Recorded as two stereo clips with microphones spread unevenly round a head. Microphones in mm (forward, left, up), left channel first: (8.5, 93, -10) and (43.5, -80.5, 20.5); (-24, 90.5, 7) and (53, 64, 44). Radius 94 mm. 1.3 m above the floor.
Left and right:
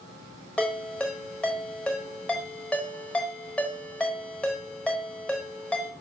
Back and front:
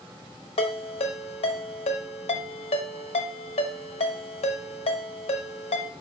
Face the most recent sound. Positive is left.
turn(degrees=-170)